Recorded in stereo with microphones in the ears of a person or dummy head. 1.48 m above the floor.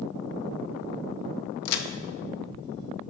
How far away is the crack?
About 0.5 m.